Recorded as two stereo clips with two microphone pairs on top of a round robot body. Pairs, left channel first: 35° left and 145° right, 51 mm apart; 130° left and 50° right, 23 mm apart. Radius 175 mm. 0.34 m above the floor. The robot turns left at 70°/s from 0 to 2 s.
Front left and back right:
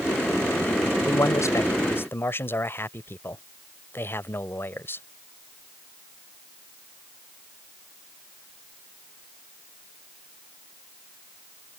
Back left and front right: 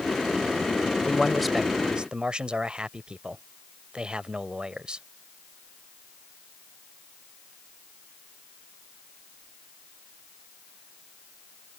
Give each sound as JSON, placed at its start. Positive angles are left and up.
{"t": 1.1, "sound": "a man speaking", "azimuth_deg": 60}